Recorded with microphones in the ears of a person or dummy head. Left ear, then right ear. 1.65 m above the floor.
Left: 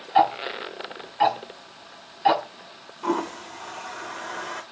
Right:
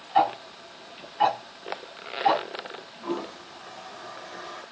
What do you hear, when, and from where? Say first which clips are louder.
0.1 s ticking: left 3 dB; 10° left (ahead or behind), 0.9 m
3.0 s a toilet flushing: left 7 dB; 55° left (ahead or behind), 0.7 m